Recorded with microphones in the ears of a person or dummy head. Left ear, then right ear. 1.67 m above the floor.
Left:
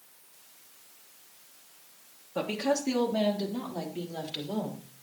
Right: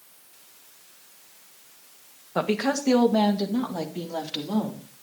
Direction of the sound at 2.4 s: 60° right (ahead or behind).